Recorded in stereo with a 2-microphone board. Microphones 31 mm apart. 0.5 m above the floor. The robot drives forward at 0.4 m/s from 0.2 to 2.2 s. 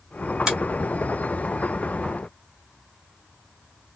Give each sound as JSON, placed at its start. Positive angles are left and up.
{"t": 0.5, "sound": "a finger snap", "side_deg": -20, "distance_m": 1.5}